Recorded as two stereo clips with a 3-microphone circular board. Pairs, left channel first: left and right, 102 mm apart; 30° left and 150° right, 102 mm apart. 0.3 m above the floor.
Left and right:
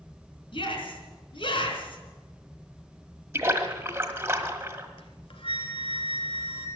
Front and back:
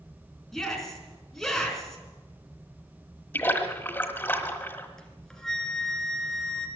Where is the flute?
115° left, 1.8 m.